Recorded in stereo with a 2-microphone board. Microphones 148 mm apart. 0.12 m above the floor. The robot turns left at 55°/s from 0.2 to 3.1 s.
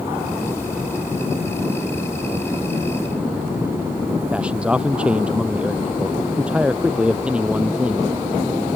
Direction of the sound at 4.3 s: 10° right (ahead or behind).